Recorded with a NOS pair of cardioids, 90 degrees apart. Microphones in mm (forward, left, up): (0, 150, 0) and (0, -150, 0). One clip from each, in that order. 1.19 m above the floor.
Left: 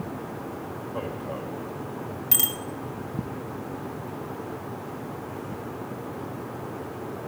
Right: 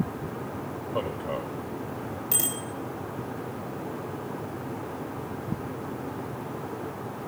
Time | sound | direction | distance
0.9 | a man speaking | 30° right | 5 m
2.3 | a bicycle bell | 35° left | 2.5 m